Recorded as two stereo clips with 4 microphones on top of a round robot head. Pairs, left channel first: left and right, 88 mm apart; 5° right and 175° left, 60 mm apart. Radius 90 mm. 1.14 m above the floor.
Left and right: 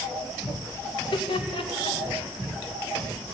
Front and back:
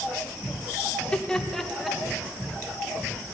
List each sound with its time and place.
0.9 s laughter: 70° left, 1.5 m; by 2.2 s 95° left, 2 m